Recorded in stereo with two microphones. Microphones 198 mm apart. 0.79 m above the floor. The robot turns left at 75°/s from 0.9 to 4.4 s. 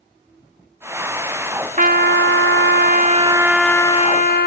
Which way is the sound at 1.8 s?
45° right.